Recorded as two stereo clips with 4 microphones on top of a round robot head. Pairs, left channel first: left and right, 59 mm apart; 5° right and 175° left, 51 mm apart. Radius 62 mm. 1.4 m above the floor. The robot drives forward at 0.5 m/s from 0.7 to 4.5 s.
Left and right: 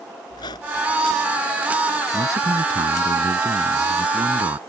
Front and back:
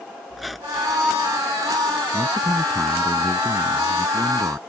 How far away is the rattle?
No rattle in this recording.